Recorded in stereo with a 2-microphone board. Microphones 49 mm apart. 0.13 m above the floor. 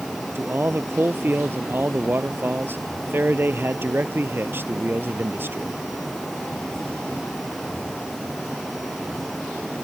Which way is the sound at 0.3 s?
45° right (ahead or behind).